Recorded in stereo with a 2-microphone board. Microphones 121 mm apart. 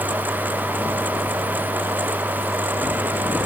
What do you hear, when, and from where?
Only background noise.